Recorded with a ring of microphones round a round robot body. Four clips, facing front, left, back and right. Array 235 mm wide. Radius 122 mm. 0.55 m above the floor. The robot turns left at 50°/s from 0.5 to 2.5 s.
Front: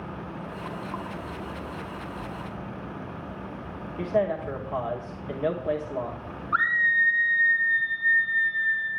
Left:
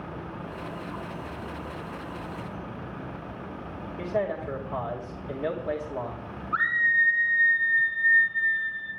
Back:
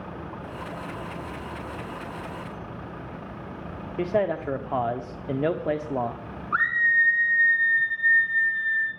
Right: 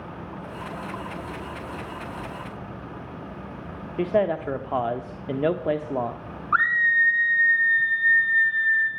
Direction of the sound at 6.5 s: 95° right.